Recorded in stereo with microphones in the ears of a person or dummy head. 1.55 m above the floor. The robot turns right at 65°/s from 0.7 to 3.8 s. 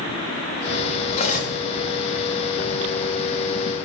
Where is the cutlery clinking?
30° left (ahead or behind), 1.5 m; by 1.6 s 55° left (ahead or behind), 1.5 m.